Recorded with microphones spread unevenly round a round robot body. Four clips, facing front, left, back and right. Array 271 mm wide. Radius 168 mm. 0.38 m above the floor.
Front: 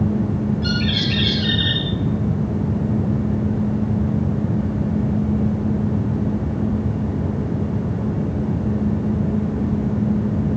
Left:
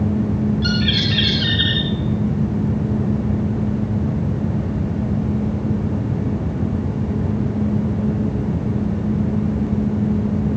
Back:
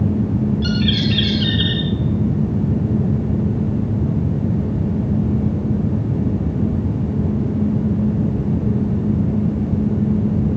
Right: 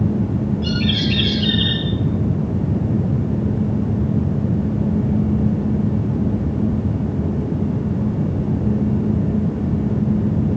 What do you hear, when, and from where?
0.6 s a bird: straight behind, 4.5 m